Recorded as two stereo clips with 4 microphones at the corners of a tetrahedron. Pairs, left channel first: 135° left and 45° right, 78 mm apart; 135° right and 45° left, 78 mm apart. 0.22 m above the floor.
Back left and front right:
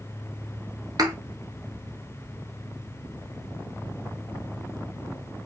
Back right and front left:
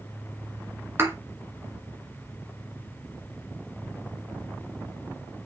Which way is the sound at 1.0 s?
15° right.